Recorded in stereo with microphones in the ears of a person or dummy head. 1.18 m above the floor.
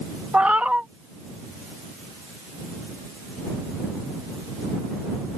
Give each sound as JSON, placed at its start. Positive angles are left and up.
{"t": 0.3, "sound": "a cat meowing", "side_deg": -5}